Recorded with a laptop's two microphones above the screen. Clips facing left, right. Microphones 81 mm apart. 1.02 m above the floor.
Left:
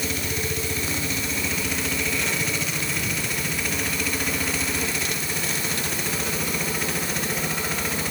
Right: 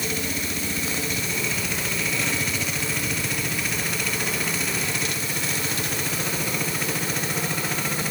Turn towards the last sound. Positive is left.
No sound to turn to.